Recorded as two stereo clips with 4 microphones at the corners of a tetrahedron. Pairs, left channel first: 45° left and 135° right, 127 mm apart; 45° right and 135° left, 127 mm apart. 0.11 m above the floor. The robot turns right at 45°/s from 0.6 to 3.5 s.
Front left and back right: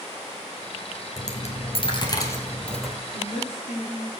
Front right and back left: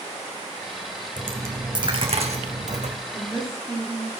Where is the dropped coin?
55° left, 1.7 m; by 2.9 s 135° left, 1.7 m.